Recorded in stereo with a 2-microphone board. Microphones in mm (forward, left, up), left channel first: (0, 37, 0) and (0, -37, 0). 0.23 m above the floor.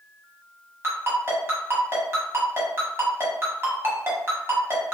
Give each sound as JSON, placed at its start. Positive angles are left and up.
{"t": 0.8, "sound": "a ringtone", "side_deg": -35, "distance_m": 1.1}